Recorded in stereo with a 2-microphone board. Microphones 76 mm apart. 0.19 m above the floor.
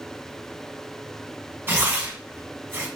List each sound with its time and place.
1.7 s tearing paper: 35° right (ahead or behind), 0.7 m